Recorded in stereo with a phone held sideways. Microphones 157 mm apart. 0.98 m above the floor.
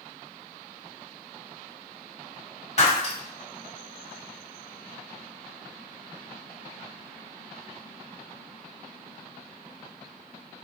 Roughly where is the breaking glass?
Left.